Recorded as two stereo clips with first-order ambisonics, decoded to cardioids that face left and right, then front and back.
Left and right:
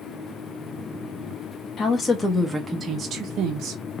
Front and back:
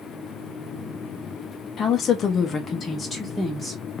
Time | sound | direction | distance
1.8 | a woman speaking | 45° left | 0.9 m